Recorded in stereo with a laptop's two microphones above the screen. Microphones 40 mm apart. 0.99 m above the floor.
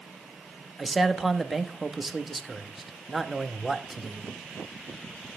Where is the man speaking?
5° right (ahead or behind), 1.1 m.